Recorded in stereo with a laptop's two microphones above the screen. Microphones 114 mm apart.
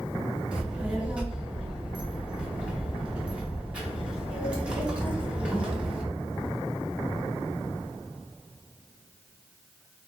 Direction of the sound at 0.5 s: 10° right (ahead or behind).